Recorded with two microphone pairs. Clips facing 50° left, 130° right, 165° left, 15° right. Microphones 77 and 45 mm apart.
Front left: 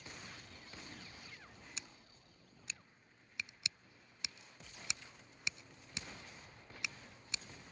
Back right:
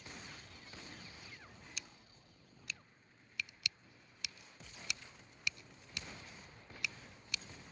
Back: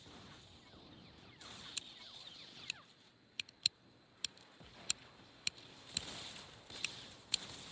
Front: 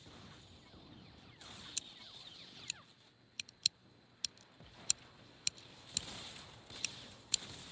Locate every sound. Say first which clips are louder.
1.8 s scissors: back right 1 dB, even; 95° left